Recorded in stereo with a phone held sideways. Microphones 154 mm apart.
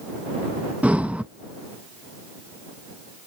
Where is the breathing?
10° right (ahead or behind).